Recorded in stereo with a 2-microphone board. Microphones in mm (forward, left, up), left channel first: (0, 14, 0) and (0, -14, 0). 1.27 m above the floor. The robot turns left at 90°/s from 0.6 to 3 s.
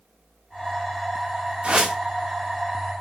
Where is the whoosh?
135° right, 1.9 m; by 2.0 s 165° right, 1.9 m.